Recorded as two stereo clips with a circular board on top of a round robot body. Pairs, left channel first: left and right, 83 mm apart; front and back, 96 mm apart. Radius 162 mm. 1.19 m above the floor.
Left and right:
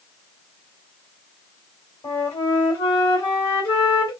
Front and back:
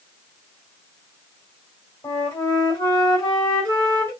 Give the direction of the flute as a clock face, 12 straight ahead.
10 o'clock.